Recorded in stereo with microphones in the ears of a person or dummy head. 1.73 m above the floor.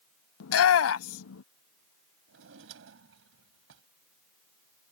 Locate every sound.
0.4 s a shout: 80° left
2.3 s a drawer: 65° right (ahead or behind)